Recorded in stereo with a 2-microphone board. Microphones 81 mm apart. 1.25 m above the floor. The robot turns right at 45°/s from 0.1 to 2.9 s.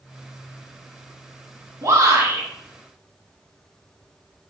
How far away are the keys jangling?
I don't hear keys jangling.